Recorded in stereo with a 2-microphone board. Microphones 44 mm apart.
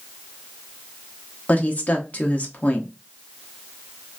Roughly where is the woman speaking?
Left.